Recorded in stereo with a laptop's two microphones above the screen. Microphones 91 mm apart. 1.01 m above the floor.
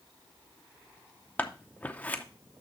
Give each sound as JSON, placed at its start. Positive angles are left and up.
{"t": 1.4, "sound": "scissors", "side_deg": 15, "distance_m": 0.6}